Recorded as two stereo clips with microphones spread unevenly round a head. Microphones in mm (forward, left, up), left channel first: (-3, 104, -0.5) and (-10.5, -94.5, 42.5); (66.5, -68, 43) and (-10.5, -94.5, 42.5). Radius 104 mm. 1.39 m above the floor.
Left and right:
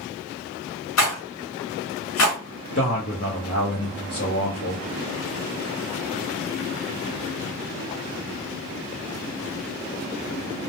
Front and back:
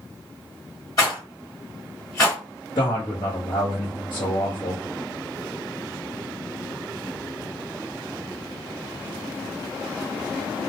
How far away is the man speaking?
About 0.7 m.